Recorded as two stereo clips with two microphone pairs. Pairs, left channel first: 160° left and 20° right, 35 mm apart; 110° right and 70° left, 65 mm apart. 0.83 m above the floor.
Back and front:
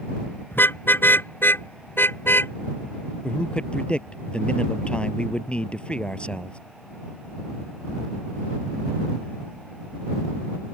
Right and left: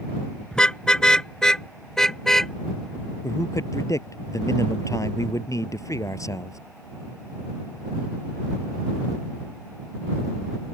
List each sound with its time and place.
0.5 s a car horn: 175° left; by 2.5 s 170° left
3.2 s a man speaking: 140° right